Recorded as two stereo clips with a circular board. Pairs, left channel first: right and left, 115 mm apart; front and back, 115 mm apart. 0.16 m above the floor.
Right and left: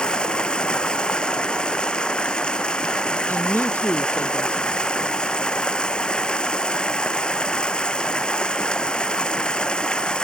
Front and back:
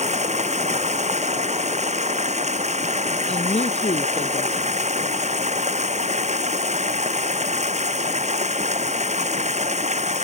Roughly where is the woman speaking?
Ahead.